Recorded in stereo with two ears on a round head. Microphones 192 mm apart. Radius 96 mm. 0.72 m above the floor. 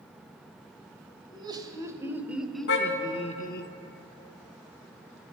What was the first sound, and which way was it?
Laughter, 20° right (ahead or behind).